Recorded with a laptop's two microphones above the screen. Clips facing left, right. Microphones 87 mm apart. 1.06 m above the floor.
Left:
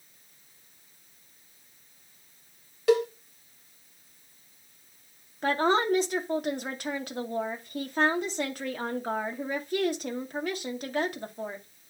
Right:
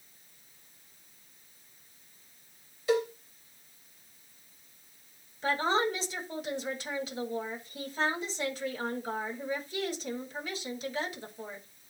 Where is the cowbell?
70° left (ahead or behind), 1.8 m.